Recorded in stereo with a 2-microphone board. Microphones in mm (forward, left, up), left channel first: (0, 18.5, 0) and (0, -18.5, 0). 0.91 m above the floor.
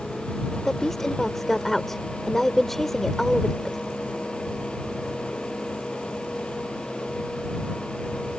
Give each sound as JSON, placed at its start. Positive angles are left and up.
{"t": 0.7, "sound": "a woman speaking", "side_deg": 5}